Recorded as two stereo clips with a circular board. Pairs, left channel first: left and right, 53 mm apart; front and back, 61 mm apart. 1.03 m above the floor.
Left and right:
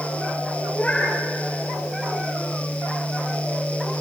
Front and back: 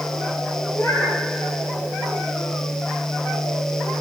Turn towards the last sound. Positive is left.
turn(degrees=25)